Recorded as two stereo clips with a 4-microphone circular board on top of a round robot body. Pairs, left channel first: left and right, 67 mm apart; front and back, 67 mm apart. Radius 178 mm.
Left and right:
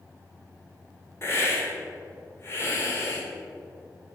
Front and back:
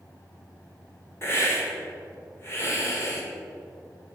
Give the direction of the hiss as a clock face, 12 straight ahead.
11 o'clock.